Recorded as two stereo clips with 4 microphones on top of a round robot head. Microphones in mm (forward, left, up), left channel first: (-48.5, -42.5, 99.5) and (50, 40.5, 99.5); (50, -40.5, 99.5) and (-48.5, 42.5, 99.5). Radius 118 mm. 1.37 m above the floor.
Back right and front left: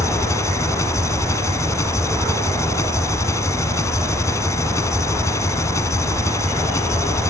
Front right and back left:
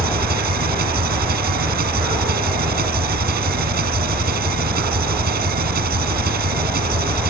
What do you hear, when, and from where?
0.0 s an engine running: 150° left